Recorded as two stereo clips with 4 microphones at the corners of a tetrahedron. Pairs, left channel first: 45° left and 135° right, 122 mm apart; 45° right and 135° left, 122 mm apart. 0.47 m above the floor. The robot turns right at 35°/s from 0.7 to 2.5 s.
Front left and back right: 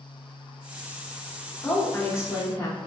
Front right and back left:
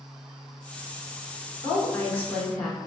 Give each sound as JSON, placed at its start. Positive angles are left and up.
{"t": 1.6, "sound": "a woman speaking", "azimuth_deg": -15, "distance_m": 0.9}